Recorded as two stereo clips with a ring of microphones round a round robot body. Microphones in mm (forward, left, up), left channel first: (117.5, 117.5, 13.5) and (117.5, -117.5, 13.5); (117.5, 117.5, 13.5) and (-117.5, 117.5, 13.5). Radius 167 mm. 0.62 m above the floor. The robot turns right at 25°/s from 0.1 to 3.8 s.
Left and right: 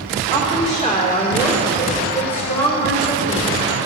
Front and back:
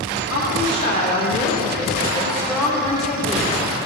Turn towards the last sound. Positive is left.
turn(degrees=110)